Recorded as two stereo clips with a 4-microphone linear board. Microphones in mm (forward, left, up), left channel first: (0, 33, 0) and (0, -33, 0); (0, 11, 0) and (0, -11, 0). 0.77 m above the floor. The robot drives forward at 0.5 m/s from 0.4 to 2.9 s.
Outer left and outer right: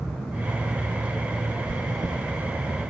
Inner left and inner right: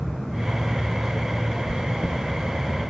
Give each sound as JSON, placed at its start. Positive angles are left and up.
{"t": 1.7, "sound": "chewing", "side_deg": -65, "distance_m": 0.5}